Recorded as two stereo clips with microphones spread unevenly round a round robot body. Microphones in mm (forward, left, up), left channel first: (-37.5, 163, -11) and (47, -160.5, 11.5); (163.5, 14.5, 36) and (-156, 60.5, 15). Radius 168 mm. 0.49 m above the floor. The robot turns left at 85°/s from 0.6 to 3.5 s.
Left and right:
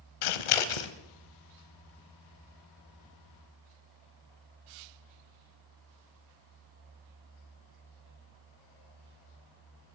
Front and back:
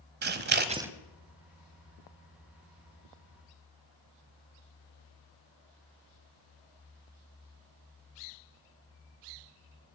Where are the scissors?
110° left, 0.9 m; by 0.9 s 85° left, 0.9 m.